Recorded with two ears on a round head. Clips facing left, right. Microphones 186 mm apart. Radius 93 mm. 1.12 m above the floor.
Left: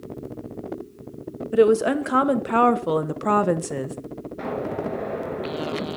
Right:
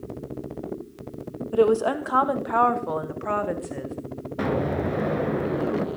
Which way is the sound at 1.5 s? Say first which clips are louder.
Left 3 dB; 25° left (ahead or behind).